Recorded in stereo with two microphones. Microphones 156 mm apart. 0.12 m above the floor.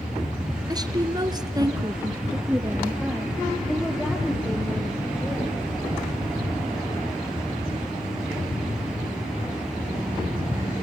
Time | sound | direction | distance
0.7 | a woman speaking | 25° right (ahead or behind) | 2 m